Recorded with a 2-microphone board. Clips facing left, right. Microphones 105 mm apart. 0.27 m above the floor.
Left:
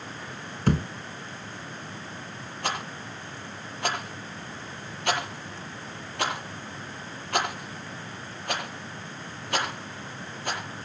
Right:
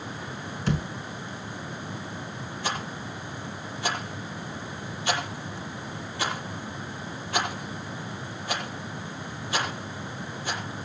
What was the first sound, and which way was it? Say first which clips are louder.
A thud: left 4 dB; 55° left (ahead or behind).